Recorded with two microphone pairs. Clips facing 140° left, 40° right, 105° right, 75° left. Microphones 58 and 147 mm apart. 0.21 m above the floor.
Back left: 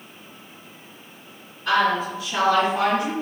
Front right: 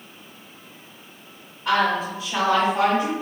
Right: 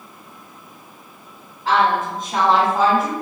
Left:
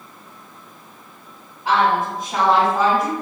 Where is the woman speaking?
15° left, 1.8 m; by 3.1 s 30° right, 1.5 m.